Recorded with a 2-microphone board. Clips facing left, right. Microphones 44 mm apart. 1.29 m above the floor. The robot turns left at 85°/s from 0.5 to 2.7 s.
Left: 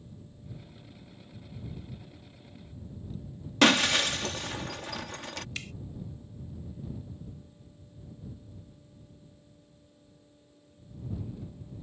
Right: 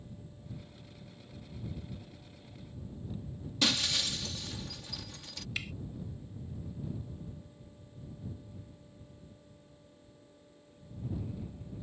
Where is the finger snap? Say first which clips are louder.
Right 1 dB; 10° right (ahead or behind).